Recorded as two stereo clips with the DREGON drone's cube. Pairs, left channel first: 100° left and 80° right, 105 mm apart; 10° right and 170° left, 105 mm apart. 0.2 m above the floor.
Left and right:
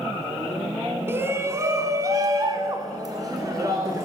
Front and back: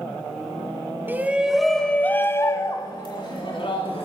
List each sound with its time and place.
1.1 s a shout: 130° right, 1.2 m; by 4.1 s 25° right, 1.9 m